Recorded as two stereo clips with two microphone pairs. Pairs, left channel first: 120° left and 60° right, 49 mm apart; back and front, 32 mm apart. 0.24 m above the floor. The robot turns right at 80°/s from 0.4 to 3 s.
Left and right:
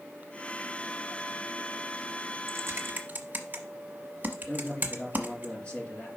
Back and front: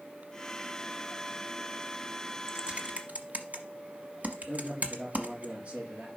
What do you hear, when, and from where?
2.5 s typing on a keyboard: 55° right, 1.0 m; by 5.5 s 15° right, 1.0 m
4.5 s a man speaking: 50° left, 3.5 m